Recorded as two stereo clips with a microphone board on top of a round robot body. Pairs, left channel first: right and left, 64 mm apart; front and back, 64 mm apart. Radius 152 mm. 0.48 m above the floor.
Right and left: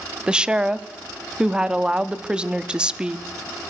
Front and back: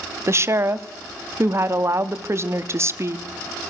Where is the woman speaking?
160° left, 1.4 m.